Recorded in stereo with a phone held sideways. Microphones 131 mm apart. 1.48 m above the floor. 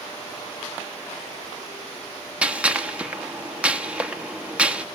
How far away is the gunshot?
About 1.1 m.